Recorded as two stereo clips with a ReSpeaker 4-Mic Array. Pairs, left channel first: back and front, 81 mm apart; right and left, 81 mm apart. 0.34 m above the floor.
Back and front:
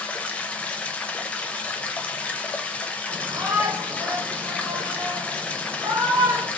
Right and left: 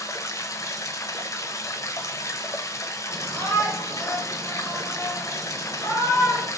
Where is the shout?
25° right, 2.5 m.